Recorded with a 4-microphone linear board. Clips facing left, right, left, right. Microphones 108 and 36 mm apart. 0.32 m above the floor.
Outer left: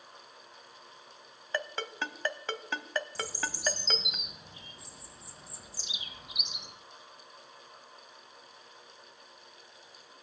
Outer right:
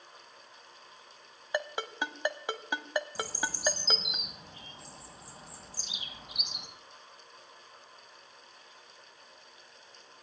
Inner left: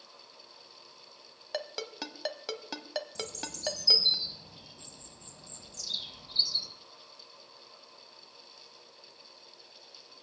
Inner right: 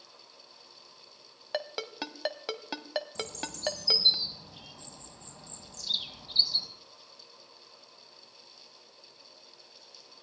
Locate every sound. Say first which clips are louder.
1.5 s a ringtone: outer right 2 dB, inner right 2 dB; 15° right (ahead or behind), 1.1 m
3.1 s a bird: outer right 1 dB, inner right 2 dB; 50° right (ahead or behind), 2.5 m